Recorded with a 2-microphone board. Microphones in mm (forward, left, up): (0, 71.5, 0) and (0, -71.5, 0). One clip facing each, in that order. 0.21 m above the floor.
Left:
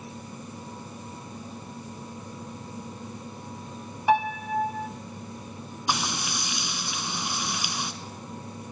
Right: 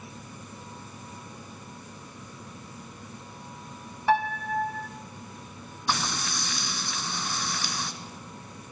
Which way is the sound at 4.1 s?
15° left (ahead or behind).